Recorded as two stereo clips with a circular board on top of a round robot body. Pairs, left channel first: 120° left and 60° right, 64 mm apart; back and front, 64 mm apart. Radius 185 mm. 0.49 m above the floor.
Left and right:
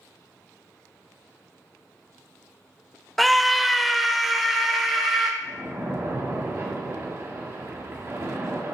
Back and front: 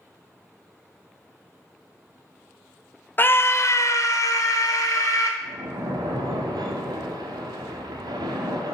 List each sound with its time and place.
3.2 s a scream: 155° right, 0.8 m; by 5.3 s 150° right, 2.5 m
5.4 s a splash: 10° right, 1.0 m